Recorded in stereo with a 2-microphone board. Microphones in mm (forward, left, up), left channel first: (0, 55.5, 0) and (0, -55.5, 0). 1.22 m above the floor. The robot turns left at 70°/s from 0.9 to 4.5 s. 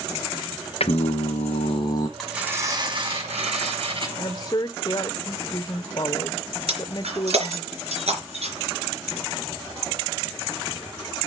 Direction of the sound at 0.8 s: 115° left.